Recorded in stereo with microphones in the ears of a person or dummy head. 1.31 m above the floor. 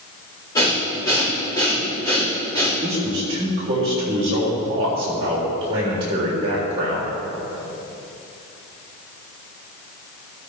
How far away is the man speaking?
About 3 m.